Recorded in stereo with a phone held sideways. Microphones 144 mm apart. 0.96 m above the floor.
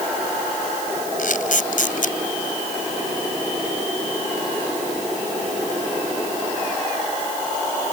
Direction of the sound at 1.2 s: 70° left (ahead or behind).